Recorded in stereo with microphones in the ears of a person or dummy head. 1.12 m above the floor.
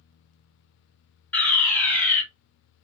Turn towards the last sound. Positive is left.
turn(degrees=10)  # may be behind; listen again after turning